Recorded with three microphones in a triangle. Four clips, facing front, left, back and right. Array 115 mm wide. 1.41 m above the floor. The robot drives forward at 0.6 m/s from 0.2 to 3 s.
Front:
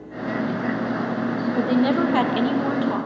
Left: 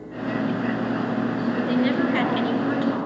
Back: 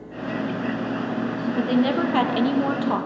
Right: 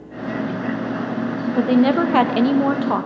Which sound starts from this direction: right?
A woman speaking, at 1.6 s.